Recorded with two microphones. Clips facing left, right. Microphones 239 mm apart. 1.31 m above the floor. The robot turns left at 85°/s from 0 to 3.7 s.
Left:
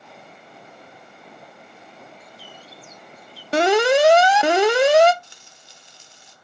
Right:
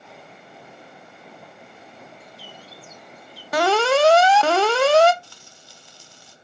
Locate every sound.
2.2 s a bird: 65° right, 1.5 m; by 3.4 s 170° right, 1.5 m
3.5 s an alarm: 30° left (ahead or behind), 0.7 m; by 5.1 s 15° left (ahead or behind), 0.7 m
5.2 s frying: 20° left (ahead or behind), 1.0 m